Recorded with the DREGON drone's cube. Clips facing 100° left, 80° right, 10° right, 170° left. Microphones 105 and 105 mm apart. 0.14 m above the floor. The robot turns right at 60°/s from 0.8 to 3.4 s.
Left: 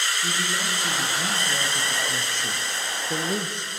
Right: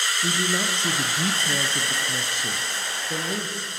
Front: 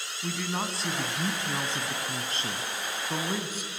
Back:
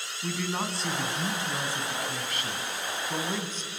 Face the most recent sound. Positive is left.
turn(degrees=55)